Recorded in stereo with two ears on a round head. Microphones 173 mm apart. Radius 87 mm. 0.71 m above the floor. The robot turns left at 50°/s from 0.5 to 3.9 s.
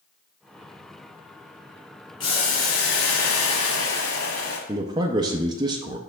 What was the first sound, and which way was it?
Boiling, 155° left.